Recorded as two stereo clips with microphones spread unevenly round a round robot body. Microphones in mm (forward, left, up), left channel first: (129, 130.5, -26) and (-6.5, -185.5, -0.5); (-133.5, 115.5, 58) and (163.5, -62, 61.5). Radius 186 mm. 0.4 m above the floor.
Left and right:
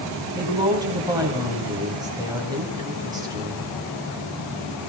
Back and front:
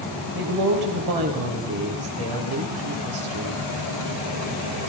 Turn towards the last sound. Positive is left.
turn(degrees=-35)